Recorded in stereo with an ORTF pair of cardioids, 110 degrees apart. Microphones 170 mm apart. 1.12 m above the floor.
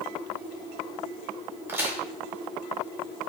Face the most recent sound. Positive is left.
turn(degrees=-15)